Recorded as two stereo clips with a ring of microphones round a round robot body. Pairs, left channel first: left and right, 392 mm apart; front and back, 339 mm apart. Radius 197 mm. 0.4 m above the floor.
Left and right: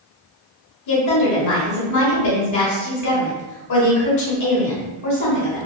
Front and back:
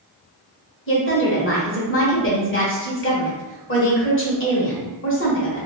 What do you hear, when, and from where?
0.9 s a woman speaking: 50° left, 1.5 m